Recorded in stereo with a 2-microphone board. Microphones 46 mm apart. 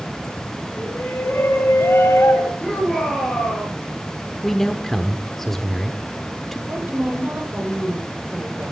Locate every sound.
0.8 s a shout: 65° left (ahead or behind), 3.5 m
2.6 s a shout: 5° left (ahead or behind), 9.5 m
4.4 s a man speaking: 5° left (ahead or behind), 1.1 m
6.7 s a woman speaking: 50° right (ahead or behind), 9 m